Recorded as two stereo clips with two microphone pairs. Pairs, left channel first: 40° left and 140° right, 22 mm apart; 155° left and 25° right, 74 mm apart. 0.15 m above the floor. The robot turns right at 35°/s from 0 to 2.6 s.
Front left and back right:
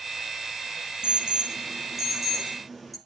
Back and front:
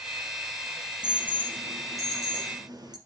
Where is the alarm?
100° right, 3 m; by 3.0 s 45° right, 3 m.